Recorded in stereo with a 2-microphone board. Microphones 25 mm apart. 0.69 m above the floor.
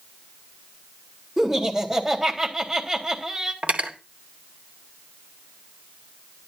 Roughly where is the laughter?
Right.